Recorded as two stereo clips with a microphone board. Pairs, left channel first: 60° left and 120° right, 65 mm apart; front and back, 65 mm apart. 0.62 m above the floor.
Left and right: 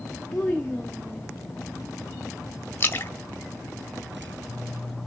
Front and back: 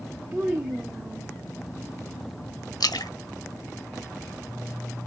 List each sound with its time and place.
0.3 s a child speaking: 130° left, 0.6 m; by 1.3 s 135° left, 1.0 m
2.8 s a splash: 5° left, 0.7 m